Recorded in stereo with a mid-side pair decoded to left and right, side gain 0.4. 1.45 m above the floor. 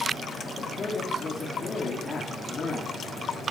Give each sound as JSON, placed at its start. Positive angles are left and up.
{"t": 0.6, "sound": "a man speaking", "azimuth_deg": 40, "distance_m": 3.5}